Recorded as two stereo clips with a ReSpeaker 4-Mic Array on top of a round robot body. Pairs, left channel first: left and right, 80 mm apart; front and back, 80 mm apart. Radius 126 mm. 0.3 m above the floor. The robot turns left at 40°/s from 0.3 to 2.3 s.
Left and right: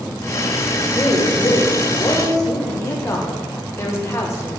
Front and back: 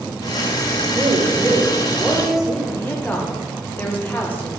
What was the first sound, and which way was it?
A woman speaking, 150° left.